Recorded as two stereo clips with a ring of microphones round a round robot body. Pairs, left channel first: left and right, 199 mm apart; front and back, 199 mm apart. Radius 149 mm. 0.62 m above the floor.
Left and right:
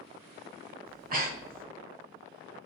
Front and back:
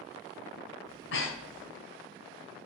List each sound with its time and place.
0.9 s breathing: 45° right, 1.6 m